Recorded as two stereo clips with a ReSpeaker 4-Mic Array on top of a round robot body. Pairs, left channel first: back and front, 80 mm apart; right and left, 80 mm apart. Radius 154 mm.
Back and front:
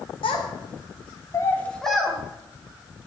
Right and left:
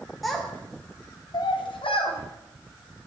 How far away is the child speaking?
About 1.6 m.